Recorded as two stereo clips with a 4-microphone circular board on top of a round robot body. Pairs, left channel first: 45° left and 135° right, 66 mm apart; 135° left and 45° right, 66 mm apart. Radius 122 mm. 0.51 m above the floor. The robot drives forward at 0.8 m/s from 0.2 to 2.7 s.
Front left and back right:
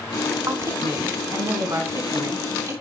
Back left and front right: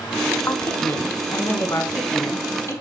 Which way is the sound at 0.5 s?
170° right.